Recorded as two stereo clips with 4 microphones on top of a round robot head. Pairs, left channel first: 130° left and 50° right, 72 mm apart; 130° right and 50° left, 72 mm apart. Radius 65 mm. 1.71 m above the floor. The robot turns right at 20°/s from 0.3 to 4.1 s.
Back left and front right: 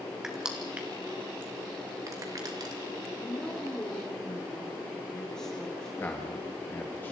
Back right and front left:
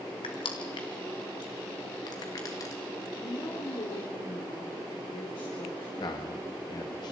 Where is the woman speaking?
165° right, 4.5 m; by 5.9 s 150° right, 4.5 m.